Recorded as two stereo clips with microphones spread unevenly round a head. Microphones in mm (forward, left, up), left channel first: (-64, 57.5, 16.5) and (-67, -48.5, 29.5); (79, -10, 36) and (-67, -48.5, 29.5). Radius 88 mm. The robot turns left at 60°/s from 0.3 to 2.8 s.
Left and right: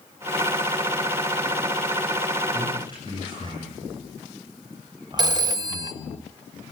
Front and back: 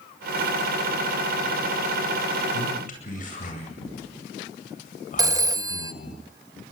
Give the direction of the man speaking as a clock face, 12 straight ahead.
12 o'clock.